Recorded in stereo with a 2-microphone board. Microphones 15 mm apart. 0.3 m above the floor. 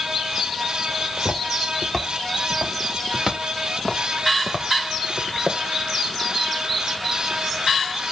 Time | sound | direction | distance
1.0 | footsteps | 20° left (ahead or behind) | 4.5 m